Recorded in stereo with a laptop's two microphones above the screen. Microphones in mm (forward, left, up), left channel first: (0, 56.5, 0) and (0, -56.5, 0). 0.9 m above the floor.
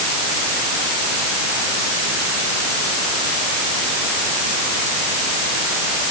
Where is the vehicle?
I don't hear a vehicle.